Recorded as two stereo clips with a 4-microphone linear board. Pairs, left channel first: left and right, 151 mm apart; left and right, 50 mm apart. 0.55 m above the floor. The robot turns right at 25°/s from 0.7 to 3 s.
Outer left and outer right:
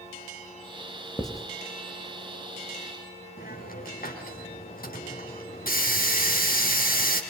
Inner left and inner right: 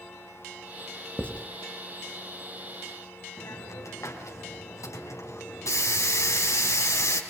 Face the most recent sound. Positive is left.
turn(degrees=75)  # may be behind; listen again after turning